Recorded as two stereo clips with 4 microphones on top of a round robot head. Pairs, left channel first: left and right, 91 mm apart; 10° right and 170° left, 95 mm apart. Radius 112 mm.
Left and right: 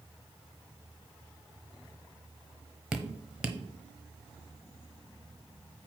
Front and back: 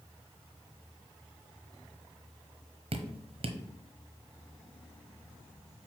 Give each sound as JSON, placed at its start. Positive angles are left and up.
{"t": 2.9, "sound": "dripping", "azimuth_deg": -170, "distance_m": 1.0}